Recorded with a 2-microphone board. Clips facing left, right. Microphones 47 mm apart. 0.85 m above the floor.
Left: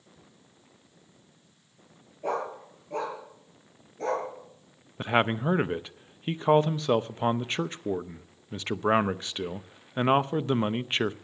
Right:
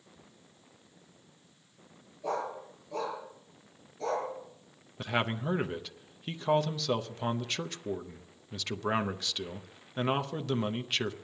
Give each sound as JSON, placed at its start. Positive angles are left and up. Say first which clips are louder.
{"t": 2.2, "sound": "a dog barking", "louder": "left 3 dB", "side_deg": 40, "distance_m": 7.0}
{"t": 5.0, "sound": "a man speaking", "louder": "left 6 dB", "side_deg": 30, "distance_m": 0.6}